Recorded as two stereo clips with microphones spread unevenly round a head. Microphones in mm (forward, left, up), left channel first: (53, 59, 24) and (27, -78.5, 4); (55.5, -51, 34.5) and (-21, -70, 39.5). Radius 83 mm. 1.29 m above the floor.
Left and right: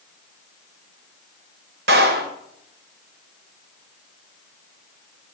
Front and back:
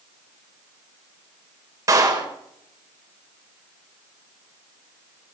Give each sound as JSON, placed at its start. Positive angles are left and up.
{"t": 1.9, "sound": "a clap", "azimuth_deg": -120, "distance_m": 3.5}